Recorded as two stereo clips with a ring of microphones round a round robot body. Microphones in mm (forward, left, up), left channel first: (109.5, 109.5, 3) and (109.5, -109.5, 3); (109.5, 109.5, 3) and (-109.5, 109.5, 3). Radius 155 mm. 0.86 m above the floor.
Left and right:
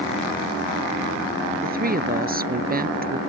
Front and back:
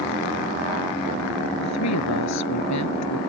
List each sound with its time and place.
1.6 s a woman speaking: 40° right